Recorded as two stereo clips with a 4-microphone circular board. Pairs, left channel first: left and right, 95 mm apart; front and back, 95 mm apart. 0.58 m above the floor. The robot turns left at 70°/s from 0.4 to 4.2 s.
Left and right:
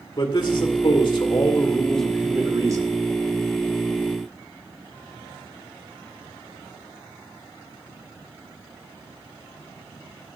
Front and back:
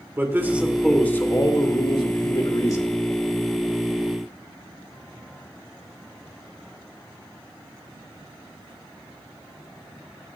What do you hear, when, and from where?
0.2 s a man speaking: 115° left, 2 m; by 2.9 s 60° right, 2 m